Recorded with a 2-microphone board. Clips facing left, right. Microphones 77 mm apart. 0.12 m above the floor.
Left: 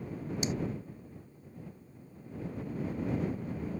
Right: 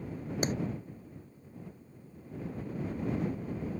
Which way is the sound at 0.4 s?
45° right (ahead or behind).